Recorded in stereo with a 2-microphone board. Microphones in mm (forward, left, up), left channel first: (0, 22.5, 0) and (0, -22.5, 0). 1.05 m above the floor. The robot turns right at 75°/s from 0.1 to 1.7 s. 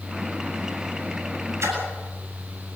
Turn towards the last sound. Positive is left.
turn(degrees=-85)